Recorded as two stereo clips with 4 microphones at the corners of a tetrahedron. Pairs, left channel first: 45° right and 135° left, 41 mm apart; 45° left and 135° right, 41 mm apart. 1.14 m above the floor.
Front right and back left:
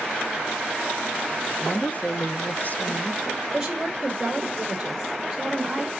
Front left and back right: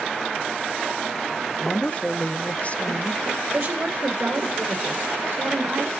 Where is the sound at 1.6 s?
5° right, 0.6 m.